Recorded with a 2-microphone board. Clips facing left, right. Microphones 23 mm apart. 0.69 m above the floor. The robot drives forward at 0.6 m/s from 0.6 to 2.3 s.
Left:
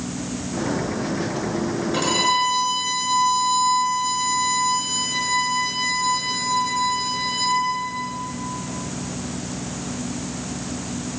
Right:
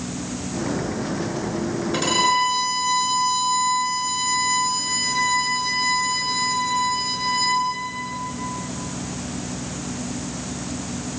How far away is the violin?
About 6 m.